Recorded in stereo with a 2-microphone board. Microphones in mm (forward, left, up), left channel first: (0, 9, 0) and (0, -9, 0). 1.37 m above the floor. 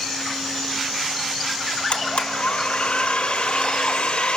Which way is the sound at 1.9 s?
70° left (ahead or behind).